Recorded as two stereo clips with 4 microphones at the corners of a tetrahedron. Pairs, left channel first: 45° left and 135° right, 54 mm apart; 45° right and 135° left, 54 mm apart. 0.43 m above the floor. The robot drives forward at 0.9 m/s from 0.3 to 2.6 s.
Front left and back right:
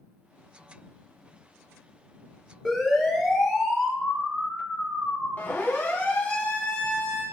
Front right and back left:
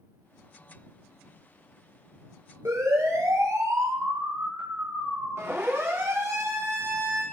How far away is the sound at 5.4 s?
About 6 m.